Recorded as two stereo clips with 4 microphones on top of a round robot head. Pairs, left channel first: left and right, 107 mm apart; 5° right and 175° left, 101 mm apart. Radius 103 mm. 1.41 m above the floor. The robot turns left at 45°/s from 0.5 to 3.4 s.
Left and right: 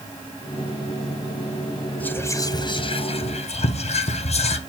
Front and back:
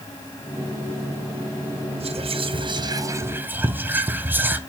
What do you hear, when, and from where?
2.0 s whispering: 165° left, 0.8 m; by 4.6 s 105° left, 0.8 m